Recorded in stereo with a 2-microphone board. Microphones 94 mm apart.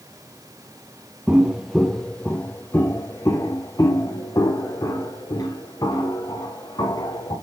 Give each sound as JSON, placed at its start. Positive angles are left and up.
{"t": 1.3, "sound": "footsteps", "side_deg": -15, "distance_m": 0.7}